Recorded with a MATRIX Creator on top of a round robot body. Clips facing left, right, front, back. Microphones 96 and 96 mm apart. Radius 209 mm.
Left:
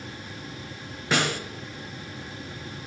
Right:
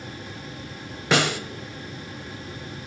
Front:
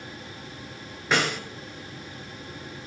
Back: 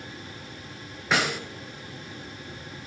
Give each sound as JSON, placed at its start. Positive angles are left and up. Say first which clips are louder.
{"t": 1.1, "sound": "a snare drum", "louder": "right 4 dB, front 1 dB", "azimuth_deg": -90, "distance_m": 0.7}